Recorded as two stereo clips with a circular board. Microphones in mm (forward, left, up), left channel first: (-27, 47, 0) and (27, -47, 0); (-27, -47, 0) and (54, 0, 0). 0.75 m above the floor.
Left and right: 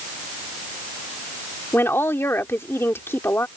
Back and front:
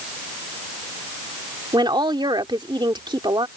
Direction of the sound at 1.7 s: 55° left.